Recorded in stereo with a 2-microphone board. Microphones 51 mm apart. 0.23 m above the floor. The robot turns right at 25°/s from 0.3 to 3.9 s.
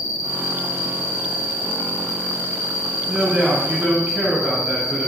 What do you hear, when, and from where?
0.0 s an insect: 55° left, 2.0 m; by 5.1 s 145° left, 2.0 m
3.1 s a man speaking: 20° right (ahead or behind), 1.1 m; by 5.1 s 25° right (ahead or behind), 1.1 m